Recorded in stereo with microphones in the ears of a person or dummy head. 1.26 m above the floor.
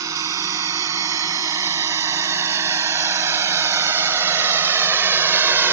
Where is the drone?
25° right (ahead or behind); by 5.7 s 15° right (ahead or behind).